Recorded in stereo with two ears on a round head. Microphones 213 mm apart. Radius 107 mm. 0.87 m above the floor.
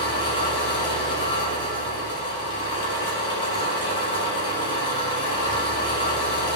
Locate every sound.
0.0 s an engine running: 20° left (ahead or behind), 3 m